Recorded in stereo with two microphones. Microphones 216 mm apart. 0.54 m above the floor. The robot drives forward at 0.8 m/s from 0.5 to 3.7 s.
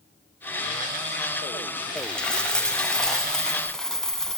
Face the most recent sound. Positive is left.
turn(degrees=0)  # may be behind; listen again after turning